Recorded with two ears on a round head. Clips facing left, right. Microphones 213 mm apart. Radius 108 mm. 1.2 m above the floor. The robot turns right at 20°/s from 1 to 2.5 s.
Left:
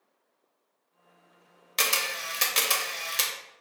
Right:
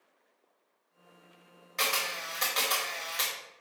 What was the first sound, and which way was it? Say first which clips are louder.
A camera shutter: left 2 dB; 50° left (ahead or behind).